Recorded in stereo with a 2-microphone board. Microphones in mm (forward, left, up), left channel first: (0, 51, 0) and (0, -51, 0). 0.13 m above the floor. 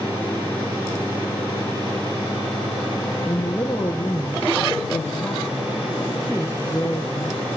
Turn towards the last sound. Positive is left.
turn(degrees=15)  # may be behind; listen again after turning